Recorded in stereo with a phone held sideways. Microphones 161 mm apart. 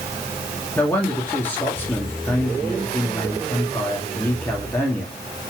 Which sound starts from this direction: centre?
A man speaking, at 0.8 s.